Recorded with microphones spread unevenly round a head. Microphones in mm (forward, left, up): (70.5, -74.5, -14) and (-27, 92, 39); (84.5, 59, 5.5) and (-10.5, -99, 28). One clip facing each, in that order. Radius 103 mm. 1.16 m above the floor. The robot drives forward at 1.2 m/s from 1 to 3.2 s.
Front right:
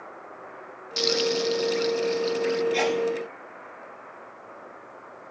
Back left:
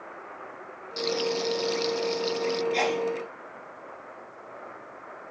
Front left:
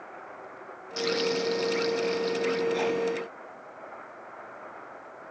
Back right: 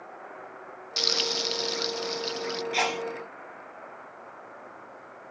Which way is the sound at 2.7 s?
145° right.